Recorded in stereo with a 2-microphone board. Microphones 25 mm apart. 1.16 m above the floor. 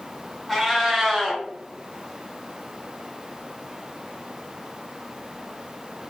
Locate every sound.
0.5 s a cat meowing: 5° right (ahead or behind), 1.0 m